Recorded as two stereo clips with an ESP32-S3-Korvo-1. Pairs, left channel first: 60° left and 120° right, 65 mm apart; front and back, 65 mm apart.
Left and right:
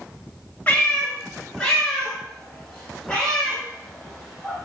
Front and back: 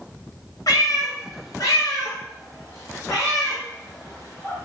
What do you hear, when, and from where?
0.7 s a cat meowing: 5° right, 1.0 m; by 4.7 s 30° right, 3 m